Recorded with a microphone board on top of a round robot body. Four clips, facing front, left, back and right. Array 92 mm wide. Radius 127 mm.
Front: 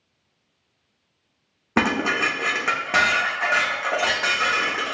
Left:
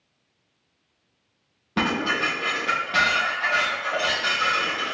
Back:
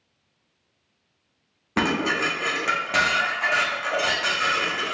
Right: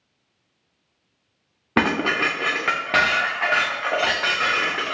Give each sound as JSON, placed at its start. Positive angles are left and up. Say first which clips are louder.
{"t": 1.8, "sound": "dishes clattering", "louder": "right 3 dB, front 2 dB", "azimuth_deg": -60, "distance_m": 0.8}